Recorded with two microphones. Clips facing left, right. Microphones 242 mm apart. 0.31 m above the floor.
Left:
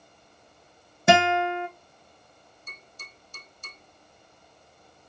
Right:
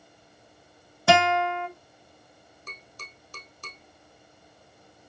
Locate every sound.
1.1 s a guitar: 20° left (ahead or behind), 1.3 m
2.7 s tapping: 70° right (ahead or behind), 3 m